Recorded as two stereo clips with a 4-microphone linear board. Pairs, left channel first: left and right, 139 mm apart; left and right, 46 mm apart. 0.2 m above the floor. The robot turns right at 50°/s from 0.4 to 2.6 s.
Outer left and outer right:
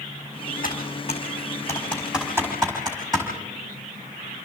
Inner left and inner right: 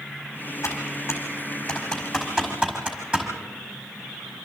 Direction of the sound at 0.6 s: 70° left (ahead or behind).